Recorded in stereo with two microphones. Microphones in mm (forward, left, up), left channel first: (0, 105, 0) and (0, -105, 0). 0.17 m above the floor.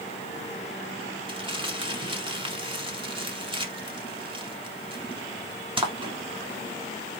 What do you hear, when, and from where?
1.3 s crumpling: 25° right (ahead or behind), 0.9 m